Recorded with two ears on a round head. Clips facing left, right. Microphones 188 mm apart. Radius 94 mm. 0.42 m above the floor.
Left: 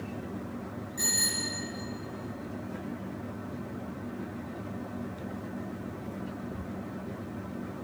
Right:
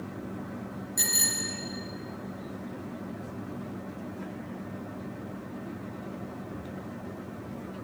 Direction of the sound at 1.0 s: 55° right (ahead or behind).